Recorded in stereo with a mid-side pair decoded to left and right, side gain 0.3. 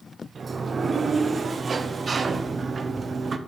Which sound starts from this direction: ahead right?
A sliding door, at 0.3 s.